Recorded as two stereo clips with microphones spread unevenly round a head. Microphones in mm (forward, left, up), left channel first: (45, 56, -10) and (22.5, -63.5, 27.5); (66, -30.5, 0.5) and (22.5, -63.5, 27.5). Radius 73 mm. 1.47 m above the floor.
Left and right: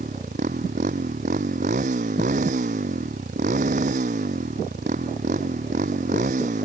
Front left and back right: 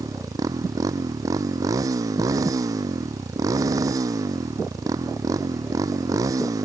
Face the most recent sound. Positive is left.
turn(degrees=-140)